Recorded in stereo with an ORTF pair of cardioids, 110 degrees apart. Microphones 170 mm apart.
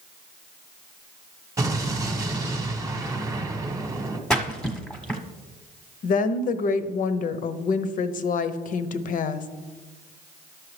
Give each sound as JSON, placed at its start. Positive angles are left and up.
{"t": 1.6, "sound": "an explosion", "azimuth_deg": -20, "distance_m": 1.1}
{"t": 4.3, "sound": "a splash", "azimuth_deg": 5, "distance_m": 1.0}
{"t": 6.0, "sound": "a woman speaking", "azimuth_deg": 50, "distance_m": 0.7}